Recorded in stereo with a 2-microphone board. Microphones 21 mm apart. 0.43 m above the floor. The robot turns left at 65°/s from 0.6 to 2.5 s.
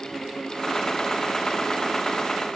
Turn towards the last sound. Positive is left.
No sound to turn to.